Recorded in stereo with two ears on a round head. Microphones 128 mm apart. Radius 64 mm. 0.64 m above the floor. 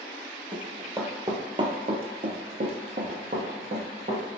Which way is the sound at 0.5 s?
10° right (ahead or behind).